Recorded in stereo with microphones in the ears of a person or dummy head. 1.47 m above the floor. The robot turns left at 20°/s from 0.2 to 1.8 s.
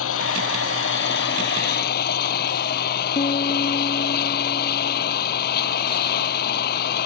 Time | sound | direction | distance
0.0 | an engine running | 90° left | ?
3.1 | a piano | 35° left (ahead or behind) | ?